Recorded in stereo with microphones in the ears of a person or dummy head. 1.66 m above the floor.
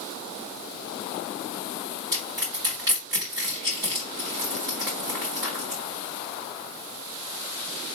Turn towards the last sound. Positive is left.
turn(degrees=-20)  # may be behind; listen again after turning